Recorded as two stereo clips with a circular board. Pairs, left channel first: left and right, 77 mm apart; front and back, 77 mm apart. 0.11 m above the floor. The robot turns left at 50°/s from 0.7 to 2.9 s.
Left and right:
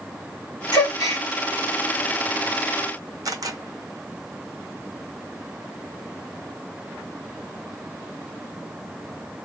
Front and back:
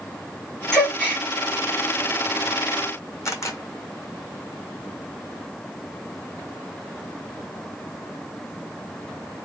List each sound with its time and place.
0.7 s a gasp: 85° left, 2.5 m; by 1.2 s 55° left, 2.5 m
3.2 s a camera shutter: 50° right, 0.9 m